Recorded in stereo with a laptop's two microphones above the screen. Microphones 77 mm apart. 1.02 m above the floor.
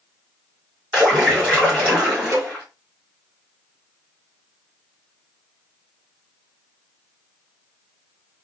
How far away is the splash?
About 1.8 m.